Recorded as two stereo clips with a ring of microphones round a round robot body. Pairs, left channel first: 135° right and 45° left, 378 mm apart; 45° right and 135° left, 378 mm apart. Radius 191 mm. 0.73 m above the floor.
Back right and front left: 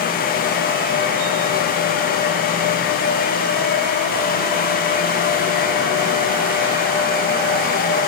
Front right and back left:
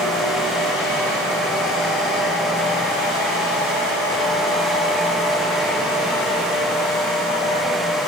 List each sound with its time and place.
Only background noise.